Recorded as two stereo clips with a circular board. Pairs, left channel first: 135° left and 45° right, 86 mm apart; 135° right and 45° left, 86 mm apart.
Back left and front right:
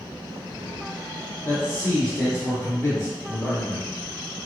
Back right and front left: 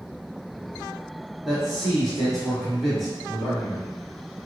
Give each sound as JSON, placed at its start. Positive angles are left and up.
{"t": 1.4, "sound": "a man speaking", "azimuth_deg": 135, "distance_m": 1.7}